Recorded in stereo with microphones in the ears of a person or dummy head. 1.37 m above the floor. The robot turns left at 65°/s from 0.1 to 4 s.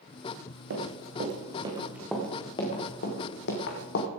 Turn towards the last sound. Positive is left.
turn(degrees=60)  # may be behind; listen again after turning